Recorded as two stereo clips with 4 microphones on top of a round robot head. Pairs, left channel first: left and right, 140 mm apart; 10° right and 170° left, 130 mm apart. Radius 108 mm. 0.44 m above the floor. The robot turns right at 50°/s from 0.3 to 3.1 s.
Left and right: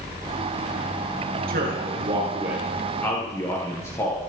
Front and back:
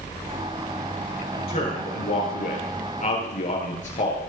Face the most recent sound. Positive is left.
turn(degrees=15)